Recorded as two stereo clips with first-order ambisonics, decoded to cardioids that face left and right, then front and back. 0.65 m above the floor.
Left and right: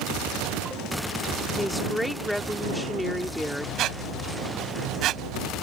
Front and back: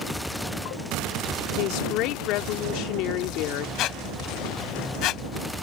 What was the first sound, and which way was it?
A woman speaking, 5° left.